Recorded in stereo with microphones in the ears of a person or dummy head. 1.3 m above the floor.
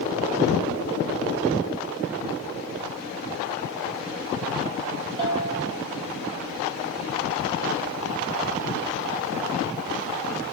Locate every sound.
5.2 s a bell: 30° right (ahead or behind), 7 m